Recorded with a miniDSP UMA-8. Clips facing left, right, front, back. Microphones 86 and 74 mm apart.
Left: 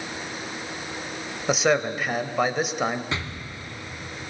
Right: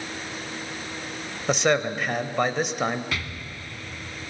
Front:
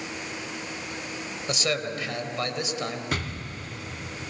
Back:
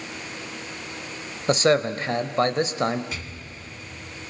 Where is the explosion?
25° left, 0.7 m.